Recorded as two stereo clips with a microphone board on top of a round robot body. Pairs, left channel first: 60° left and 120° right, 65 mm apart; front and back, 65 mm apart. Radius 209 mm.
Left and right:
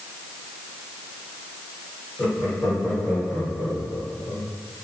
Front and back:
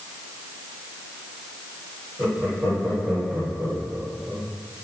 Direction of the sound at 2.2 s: 110° left.